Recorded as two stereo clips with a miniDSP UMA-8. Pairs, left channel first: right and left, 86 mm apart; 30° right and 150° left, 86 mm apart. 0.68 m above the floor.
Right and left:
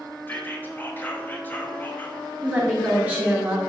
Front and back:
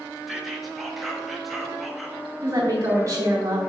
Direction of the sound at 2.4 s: 145° left.